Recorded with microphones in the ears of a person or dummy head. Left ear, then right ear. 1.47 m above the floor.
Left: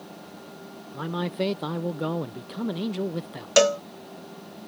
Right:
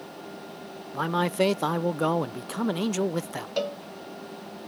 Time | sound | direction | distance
0.9 | a man speaking | 40° right (ahead or behind) | ?
3.6 | a cowbell | 60° left (ahead or behind) | ?